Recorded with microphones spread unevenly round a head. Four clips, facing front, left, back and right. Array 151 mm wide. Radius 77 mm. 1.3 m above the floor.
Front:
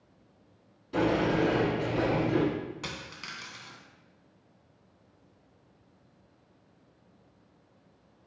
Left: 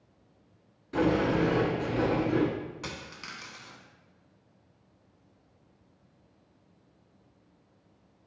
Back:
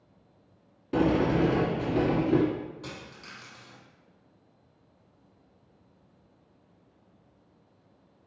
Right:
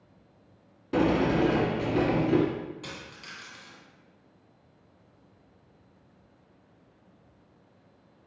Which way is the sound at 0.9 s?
135° right.